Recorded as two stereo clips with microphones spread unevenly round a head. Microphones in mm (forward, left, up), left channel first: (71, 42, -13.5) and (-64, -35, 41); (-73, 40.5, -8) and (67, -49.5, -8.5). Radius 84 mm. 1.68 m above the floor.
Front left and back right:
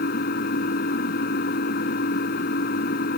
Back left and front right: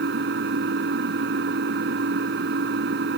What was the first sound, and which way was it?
An engine running, 5° right.